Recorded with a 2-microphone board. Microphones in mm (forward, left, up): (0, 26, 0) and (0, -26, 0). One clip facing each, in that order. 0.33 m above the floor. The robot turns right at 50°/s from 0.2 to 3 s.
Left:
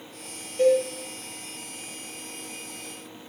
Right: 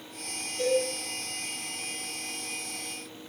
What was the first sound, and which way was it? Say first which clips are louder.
A cowbell: left 6 dB; 30° left (ahead or behind).